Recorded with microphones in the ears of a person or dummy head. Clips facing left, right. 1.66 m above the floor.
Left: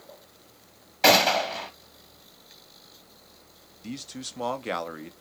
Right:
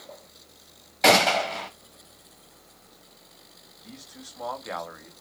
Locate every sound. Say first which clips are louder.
1.0 s a gunshot: even; 5° right (ahead or behind), 1.2 m
3.8 s a man speaking: left 9 dB; 45° left (ahead or behind), 0.7 m